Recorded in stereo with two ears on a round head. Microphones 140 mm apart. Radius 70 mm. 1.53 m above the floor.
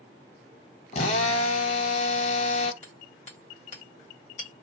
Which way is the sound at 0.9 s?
45° left (ahead or behind).